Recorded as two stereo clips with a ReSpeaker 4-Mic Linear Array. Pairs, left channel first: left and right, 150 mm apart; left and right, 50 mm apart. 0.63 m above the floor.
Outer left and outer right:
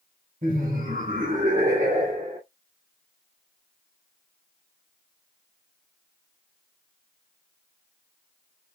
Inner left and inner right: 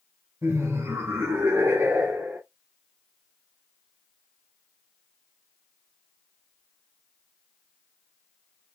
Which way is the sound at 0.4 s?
60° right (ahead or behind).